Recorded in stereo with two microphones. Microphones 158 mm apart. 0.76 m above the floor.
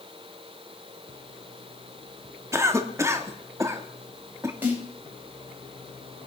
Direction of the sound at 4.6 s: 10° right (ahead or behind).